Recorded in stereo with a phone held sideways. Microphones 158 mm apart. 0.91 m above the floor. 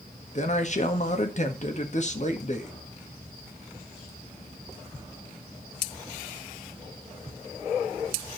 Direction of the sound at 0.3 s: 50° left (ahead or behind).